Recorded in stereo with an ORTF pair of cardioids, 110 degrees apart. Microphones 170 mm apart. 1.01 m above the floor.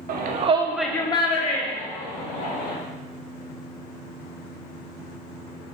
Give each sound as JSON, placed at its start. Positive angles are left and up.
{"t": 0.1, "sound": "a shout", "azimuth_deg": -65, "distance_m": 0.7}